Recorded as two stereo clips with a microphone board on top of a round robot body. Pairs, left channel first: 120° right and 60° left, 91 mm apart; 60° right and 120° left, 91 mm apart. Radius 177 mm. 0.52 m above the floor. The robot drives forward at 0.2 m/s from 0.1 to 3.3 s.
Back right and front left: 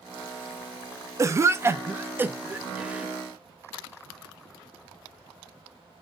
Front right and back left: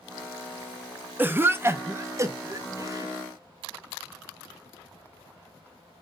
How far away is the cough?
About 0.7 m.